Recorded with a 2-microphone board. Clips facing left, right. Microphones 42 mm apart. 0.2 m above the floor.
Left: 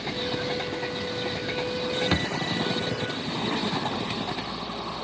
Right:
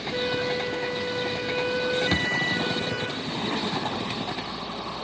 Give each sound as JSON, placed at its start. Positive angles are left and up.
{"t": 0.1, "sound": "a flute", "side_deg": -65, "distance_m": 1.9}
{"t": 2.1, "sound": "a thud", "side_deg": 25, "distance_m": 0.9}